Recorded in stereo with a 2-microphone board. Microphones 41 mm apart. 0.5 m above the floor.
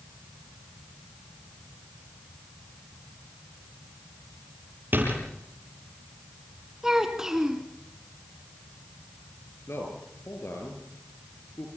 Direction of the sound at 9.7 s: 80° left.